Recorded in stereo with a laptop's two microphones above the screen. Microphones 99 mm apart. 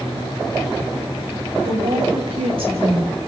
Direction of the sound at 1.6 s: 60° right (ahead or behind).